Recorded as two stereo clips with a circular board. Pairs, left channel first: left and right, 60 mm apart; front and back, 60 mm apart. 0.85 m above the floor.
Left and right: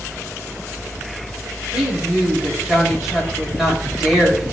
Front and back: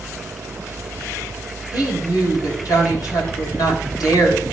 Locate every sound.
1.7 s a woman speaking: 5° right, 4 m